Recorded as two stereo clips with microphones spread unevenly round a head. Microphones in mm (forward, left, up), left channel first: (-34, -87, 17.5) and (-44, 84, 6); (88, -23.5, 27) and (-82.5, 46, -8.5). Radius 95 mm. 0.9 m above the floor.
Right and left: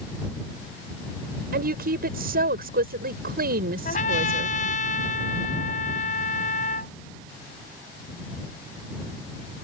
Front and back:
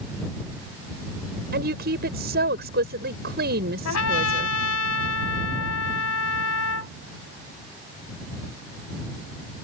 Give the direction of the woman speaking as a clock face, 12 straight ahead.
8 o'clock.